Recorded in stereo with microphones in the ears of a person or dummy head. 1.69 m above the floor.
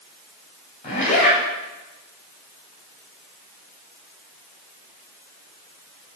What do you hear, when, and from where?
0.8 s a zipper: 45° left (ahead or behind), 4 m